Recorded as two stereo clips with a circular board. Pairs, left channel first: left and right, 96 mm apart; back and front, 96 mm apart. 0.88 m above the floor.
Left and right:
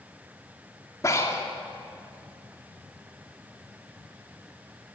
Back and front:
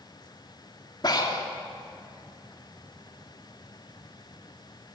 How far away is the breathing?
About 2.5 m.